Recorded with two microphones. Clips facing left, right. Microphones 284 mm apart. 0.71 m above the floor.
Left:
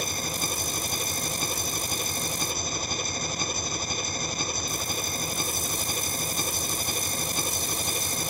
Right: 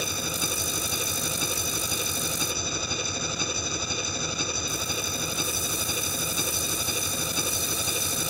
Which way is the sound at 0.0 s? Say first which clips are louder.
Right 1 dB; 5° right (ahead or behind).